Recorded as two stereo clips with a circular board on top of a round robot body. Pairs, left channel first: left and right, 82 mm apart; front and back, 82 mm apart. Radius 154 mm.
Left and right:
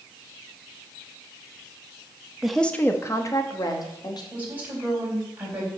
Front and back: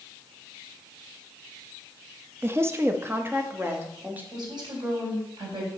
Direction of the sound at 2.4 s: 170° right.